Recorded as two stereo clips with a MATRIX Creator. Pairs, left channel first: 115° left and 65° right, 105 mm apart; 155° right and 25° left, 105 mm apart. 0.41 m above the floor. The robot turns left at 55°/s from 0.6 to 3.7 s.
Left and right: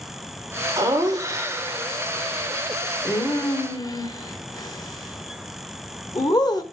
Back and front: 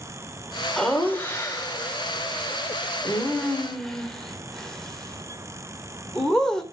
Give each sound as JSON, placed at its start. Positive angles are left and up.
{"t": 0.8, "sound": "laughter", "azimuth_deg": -75, "distance_m": 1.0}